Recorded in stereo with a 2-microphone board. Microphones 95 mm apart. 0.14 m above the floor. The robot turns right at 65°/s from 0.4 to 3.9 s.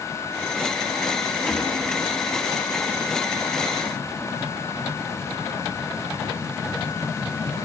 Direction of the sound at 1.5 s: 5° left (ahead or behind).